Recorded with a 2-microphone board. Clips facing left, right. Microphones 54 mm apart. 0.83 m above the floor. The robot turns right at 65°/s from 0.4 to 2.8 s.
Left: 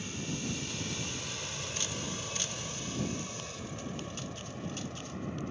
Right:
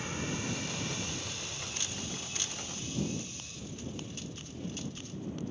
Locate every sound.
0.0 s an aircraft: 35° right (ahead or behind); by 5.5 s 55° left (ahead or behind)